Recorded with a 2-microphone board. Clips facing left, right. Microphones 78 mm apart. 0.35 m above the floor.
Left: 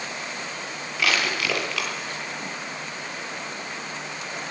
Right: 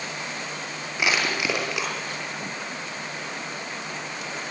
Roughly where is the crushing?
Centre.